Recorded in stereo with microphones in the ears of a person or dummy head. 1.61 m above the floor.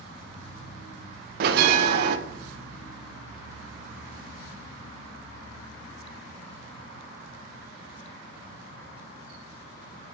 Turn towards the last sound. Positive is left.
turn(degrees=-60)  # may be behind; listen again after turning